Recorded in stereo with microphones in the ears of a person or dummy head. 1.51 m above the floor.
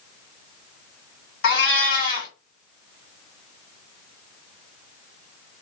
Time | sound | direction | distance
1.4 | a cat meowing | 55° left (ahead or behind) | 1.9 m